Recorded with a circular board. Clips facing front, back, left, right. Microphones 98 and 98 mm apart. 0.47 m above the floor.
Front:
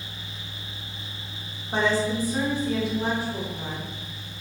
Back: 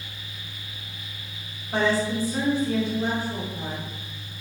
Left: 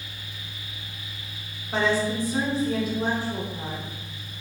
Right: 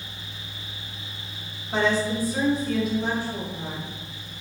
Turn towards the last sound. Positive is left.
turn(degrees=85)